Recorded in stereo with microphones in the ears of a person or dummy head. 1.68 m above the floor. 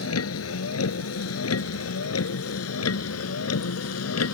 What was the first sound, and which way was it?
A vehicle, 85° left.